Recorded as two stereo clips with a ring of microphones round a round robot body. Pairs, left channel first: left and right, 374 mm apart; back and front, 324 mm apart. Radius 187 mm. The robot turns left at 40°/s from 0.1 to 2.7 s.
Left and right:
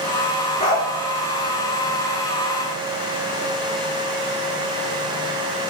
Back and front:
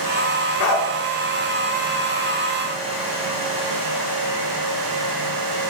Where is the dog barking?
165° left, 4 m; by 0.9 s 155° left, 4 m.